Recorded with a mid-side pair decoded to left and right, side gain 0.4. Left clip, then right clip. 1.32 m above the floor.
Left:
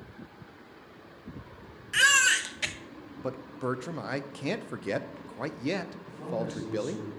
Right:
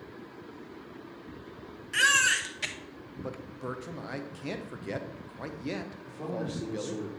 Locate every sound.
1.9 s a baby crying: 25° left, 1.1 m
3.2 s a man speaking: 50° left, 0.8 m
6.0 s a man speaking: 45° right, 3.5 m